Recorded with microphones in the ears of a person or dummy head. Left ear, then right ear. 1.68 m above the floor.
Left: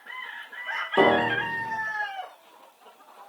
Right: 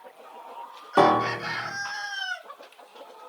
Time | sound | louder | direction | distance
1.0 | a piano | right 1 dB | 65° right (ahead or behind) | 1.3 m